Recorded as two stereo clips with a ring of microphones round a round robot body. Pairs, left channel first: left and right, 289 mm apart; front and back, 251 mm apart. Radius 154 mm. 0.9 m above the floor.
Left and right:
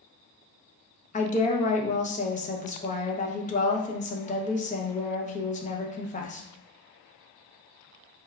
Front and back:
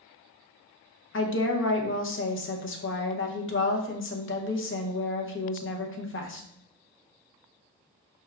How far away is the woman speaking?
About 0.8 m.